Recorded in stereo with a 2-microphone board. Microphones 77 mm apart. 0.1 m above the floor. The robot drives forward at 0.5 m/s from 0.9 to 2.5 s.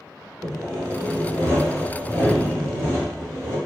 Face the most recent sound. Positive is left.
turn(degrees=-30)  # may be behind; listen again after turning